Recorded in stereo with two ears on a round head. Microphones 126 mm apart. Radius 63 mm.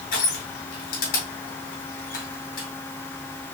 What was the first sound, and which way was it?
Crushing, 70° left (ahead or behind).